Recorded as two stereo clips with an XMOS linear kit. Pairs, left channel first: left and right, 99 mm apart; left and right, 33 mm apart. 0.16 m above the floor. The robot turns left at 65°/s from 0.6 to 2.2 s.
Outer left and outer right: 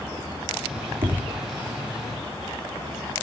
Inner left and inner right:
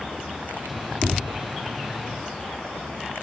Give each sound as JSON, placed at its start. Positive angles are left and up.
{"t": 1.0, "sound": "tapping", "side_deg": -75, "distance_m": 3.0}